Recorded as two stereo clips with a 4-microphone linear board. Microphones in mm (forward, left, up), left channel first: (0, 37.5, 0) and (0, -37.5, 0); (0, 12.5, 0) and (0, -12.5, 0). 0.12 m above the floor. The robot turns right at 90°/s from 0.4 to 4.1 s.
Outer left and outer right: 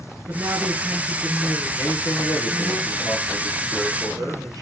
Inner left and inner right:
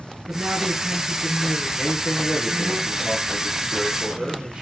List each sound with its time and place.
0.3 s a woman speaking: 25° right (ahead or behind), 1.2 m; by 2.8 s 20° left (ahead or behind), 1.2 m
1.8 s a man speaking: 45° left, 2.5 m; by 4.6 s 105° right, 2.5 m